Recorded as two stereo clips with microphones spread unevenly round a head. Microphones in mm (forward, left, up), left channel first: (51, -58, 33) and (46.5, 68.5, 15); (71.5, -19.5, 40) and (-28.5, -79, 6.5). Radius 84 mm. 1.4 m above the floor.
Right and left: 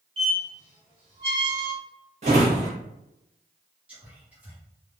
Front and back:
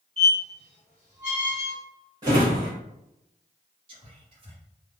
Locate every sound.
0.2 s a squeak: 70° left, 1.0 m
2.2 s a drawer: 135° left, 0.8 m
3.9 s whispering: 170° left, 0.9 m